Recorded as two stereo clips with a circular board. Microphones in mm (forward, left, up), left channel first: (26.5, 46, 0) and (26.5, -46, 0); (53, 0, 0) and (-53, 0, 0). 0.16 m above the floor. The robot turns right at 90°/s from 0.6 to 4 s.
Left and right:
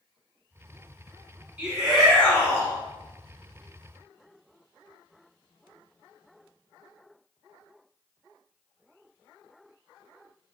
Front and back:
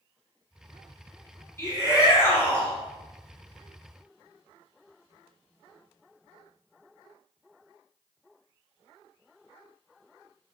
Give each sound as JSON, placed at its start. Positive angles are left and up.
{"t": 1.6, "sound": "a shout", "azimuth_deg": -25, "distance_m": 1.6}